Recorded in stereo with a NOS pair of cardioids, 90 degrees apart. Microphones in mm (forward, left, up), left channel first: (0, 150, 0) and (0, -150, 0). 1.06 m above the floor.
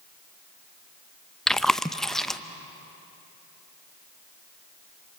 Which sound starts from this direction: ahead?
Chewing, at 1.5 s.